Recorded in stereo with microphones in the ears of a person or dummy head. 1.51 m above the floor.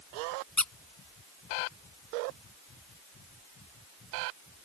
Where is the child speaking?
I don't hear a child speaking.